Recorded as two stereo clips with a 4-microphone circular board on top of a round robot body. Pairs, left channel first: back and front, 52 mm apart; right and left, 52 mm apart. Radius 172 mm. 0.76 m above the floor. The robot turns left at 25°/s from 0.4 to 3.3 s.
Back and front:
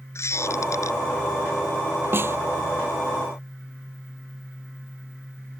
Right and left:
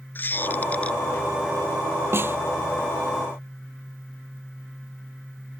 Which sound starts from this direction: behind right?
A squeak, at 0.1 s.